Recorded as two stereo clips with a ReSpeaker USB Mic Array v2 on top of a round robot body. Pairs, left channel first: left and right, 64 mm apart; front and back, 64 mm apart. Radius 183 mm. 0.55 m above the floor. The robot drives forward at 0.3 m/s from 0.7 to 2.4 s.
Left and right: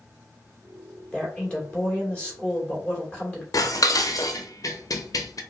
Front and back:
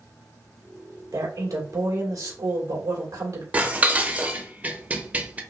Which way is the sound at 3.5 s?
115° left.